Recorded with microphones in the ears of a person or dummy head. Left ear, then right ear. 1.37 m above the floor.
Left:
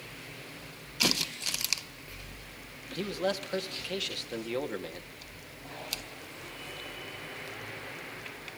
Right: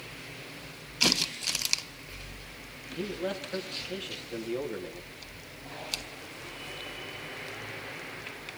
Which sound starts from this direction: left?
A man speaking, at 2.9 s.